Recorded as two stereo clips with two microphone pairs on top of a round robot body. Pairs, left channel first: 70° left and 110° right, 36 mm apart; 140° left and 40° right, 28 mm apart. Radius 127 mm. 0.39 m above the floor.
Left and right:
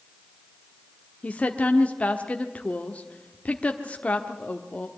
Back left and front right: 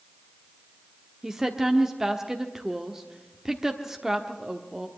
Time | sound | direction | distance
1.2 | a woman speaking | 35° left | 1.3 m